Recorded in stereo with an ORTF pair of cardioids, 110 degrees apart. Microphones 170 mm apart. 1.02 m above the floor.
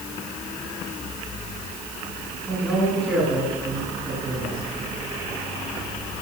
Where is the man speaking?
10° right, 9 m.